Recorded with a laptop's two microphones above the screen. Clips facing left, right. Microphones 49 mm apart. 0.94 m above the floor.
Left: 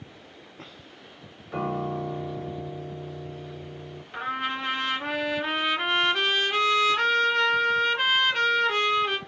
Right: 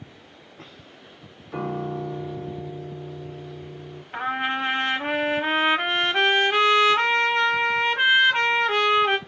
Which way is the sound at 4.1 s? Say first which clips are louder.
Right 4 dB; 35° right (ahead or behind).